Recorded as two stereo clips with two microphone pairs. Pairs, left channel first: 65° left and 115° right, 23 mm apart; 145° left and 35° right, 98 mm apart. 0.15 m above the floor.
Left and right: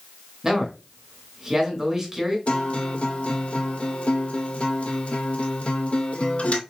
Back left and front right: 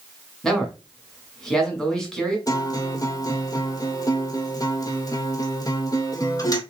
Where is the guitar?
90° left, 0.7 m.